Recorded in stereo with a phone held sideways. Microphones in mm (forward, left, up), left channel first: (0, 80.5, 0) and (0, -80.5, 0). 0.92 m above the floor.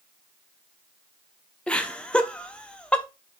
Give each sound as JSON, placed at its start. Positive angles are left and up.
{"t": 1.7, "sound": "laughter", "side_deg": 5, "distance_m": 0.5}